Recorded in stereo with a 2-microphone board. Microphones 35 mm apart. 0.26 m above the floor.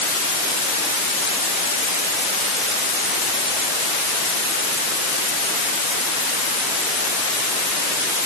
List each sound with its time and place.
Only background noise.